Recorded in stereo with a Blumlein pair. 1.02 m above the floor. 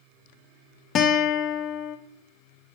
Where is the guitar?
30° left, 0.7 m.